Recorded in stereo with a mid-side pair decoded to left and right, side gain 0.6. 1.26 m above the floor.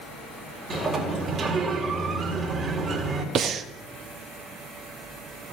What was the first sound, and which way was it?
A sliding door, 40° right.